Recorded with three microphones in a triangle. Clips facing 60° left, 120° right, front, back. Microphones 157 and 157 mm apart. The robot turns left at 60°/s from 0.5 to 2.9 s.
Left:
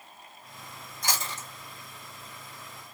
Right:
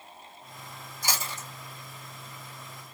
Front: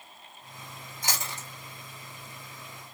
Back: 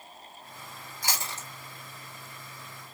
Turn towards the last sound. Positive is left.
turn(degrees=-150)